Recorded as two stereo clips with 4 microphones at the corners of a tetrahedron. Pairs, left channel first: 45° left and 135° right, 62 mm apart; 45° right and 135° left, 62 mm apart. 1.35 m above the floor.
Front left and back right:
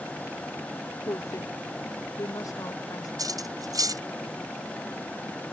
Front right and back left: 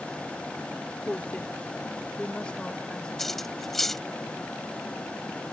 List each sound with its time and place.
1.1 s a woman speaking: 25° left; by 3.1 s 30° left
3.2 s cutlery clinking: 130° right